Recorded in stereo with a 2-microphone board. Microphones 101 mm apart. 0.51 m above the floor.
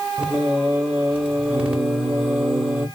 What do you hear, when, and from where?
0.2 s singing: 10° right (ahead or behind), 0.7 m